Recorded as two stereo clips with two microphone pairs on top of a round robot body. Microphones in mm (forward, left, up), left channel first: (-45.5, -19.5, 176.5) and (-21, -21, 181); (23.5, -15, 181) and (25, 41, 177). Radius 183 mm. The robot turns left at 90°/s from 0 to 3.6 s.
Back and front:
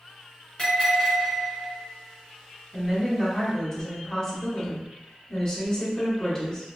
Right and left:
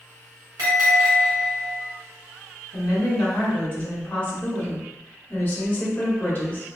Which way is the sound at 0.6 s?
105° left.